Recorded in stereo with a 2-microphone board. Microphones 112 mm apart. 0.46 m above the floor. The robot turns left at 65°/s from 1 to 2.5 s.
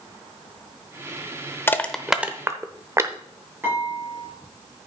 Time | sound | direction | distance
1.7 | crushing | 20° left (ahead or behind) | 0.8 m
3.6 | dishes clattering | 20° right (ahead or behind) | 6.5 m